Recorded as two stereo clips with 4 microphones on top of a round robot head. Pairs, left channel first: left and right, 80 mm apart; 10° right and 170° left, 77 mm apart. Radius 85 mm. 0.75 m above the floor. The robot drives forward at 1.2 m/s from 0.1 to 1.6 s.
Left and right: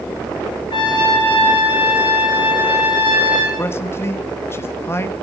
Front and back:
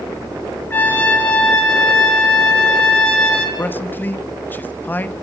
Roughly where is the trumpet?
Ahead left.